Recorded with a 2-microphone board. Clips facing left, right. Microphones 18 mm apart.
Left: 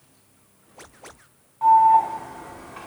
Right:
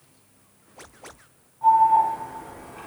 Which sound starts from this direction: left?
An alarm, at 1.6 s.